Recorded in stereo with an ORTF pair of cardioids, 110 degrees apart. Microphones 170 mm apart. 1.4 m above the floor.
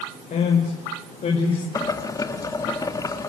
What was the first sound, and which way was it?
A man speaking, 50° left.